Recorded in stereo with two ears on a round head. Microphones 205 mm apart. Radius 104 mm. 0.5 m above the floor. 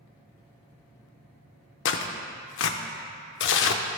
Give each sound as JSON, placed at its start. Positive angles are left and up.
{"t": 1.9, "sound": "tearing paper", "side_deg": 55, "distance_m": 0.6}